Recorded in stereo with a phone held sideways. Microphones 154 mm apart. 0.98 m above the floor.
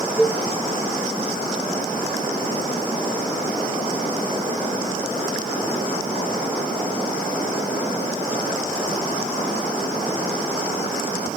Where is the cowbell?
10° right (ahead or behind), 1.1 m.